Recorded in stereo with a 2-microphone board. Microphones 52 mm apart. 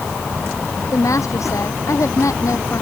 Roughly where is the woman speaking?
Left.